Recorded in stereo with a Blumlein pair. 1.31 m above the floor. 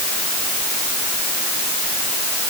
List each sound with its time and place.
Only background noise.